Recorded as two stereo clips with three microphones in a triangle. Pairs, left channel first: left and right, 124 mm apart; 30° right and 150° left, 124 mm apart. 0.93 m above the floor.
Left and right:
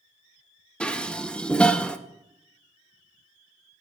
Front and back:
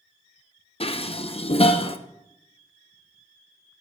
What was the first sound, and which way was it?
Dishes clattering, 5° left.